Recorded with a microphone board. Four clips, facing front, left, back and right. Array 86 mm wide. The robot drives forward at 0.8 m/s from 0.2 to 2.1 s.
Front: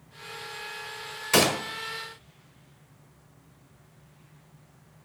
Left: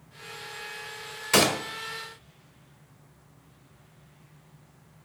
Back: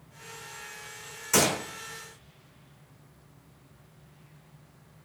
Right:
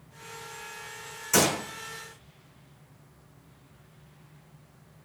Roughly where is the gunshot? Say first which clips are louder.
Left 2 dB, front 3 dB; ahead left.